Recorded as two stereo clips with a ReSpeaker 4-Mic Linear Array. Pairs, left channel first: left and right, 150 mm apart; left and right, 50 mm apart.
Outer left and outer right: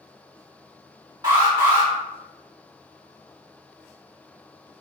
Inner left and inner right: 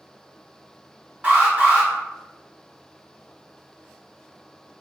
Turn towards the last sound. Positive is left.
turn(degrees=-30)  # may be behind; listen again after turning